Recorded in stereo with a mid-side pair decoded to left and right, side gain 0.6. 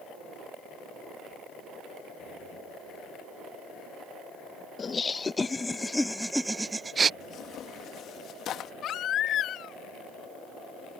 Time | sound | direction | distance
4.8 | laughter | 30° left | ?
7.2 | tearing paper | 55° left | ?
8.8 | a baby crying | 50° left | ?